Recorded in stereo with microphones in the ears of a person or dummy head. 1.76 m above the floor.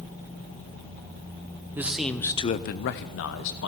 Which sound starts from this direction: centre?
A man speaking, at 1.8 s.